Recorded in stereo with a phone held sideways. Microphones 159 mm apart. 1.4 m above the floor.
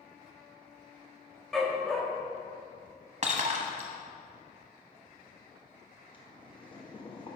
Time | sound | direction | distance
1.5 | a dog barking | 5° left (ahead or behind) | 0.9 m
3.2 | breaking glass | 45° right (ahead or behind) | 1.0 m
6.1 | boiling | 30° left (ahead or behind) | 1.1 m